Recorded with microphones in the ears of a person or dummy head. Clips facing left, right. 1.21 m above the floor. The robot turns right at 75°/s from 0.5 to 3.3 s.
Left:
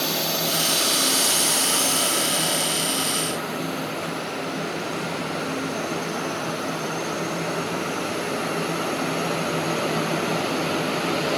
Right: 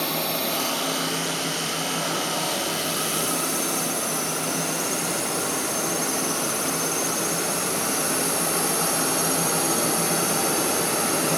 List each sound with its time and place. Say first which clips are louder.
0.0 s a drone: left 1 dB; 10° left (ahead or behind); by 11.4 s 70° right (ahead or behind)